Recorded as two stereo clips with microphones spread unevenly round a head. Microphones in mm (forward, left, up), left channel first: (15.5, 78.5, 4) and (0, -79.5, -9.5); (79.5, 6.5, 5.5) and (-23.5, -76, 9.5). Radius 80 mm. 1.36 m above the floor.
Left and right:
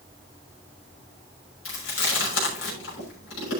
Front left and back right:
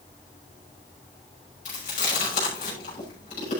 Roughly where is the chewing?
Left.